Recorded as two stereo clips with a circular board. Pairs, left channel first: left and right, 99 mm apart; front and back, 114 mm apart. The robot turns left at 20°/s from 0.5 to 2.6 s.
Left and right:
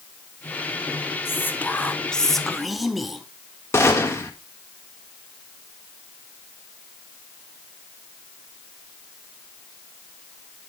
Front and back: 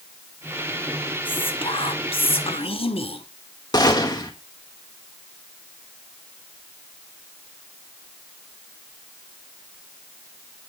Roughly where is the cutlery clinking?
No cutlery clinking in this recording.